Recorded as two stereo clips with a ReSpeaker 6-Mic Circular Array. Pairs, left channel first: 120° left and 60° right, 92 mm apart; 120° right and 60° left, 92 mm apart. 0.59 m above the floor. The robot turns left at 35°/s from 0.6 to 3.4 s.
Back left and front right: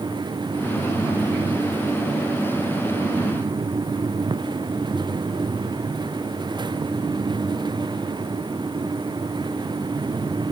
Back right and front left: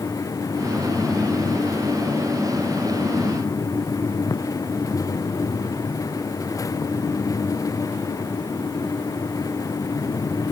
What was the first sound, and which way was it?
Only background noise.